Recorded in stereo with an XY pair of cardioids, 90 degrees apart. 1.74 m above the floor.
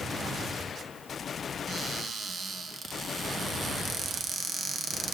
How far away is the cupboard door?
About 1.1 m.